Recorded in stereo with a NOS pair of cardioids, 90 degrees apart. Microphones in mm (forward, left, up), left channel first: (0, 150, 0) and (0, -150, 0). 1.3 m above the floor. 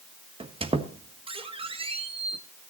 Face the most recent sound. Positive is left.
turn(degrees=-20)